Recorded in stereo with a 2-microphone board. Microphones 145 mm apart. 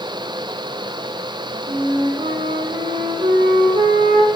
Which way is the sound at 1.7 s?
40° right (ahead or behind).